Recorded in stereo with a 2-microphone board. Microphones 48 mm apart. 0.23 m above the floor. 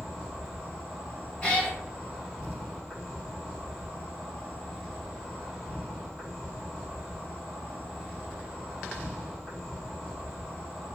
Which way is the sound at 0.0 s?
5° right (ahead or behind).